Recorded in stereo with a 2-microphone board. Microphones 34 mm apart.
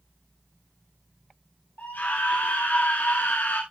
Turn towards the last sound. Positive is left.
turn(degrees=65)  # may be behind; listen again after turning